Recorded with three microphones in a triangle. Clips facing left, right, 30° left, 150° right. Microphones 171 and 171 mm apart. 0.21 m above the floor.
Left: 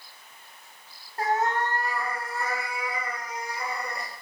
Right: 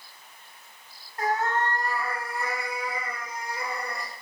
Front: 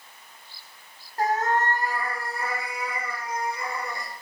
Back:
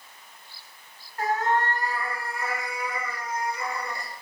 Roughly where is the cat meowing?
Ahead left.